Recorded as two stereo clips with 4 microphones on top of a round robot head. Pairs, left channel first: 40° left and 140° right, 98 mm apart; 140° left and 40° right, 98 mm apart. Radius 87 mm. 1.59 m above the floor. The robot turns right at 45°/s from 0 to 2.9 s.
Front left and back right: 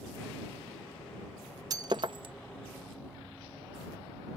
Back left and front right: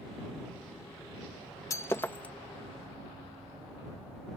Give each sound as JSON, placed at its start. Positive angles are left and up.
{"t": 1.7, "sound": "breaking glass", "azimuth_deg": -175}